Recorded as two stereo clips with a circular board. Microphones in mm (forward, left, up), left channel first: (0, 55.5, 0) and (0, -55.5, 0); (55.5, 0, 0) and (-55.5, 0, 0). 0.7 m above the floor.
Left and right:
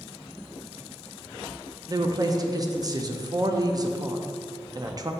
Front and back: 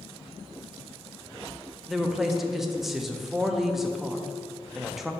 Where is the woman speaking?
95° right, 0.5 m.